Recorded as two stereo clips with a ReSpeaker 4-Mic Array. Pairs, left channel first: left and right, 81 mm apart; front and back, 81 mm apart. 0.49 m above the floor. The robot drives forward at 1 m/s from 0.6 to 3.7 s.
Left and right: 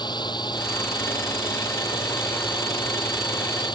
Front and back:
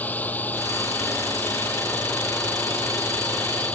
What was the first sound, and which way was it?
A drone, 70° left.